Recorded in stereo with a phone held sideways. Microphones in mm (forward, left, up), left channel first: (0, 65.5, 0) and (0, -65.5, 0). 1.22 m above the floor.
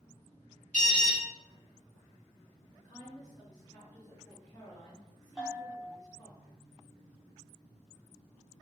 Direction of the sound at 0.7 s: 80° left.